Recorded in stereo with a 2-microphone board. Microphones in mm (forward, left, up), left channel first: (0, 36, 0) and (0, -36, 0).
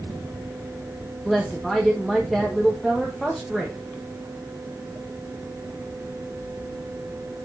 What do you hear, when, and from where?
1.2 s a woman speaking: centre (ahead or behind), 1.6 m